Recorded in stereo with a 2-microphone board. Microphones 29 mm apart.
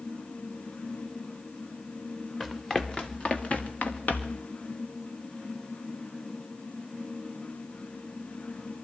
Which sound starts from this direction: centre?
Running footsteps, at 2.4 s.